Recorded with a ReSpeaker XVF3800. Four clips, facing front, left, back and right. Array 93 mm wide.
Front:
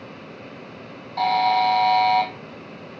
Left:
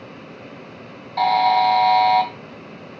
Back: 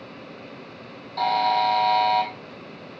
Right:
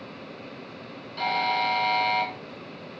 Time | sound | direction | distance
1.2 | a buzzer | 75° left | 3 m